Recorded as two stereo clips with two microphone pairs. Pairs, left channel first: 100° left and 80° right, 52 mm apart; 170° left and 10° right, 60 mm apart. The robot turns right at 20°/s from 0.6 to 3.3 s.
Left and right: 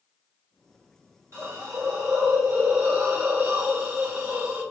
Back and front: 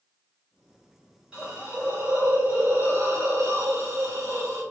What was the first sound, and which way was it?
A hiss, 75° right.